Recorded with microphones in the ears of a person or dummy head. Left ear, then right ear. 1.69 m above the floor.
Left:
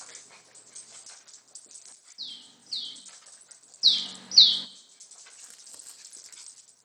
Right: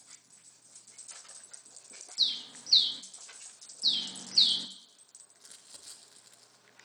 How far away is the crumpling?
About 2 m.